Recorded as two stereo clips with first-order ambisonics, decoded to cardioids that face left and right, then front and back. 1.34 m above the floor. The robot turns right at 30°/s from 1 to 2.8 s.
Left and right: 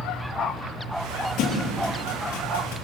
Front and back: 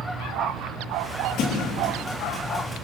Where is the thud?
45° left, 6 m; by 2.8 s 85° left, 6 m.